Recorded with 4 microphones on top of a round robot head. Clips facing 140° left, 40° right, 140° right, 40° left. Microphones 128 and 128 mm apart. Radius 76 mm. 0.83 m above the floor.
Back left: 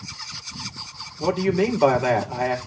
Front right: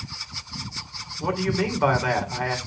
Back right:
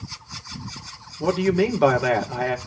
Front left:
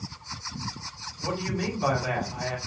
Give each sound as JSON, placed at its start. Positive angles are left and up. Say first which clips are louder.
{"t": 1.2, "sound": "a man speaking", "louder": "back left 4 dB, back right 10 dB", "azimuth_deg": -155, "distance_m": 3.0}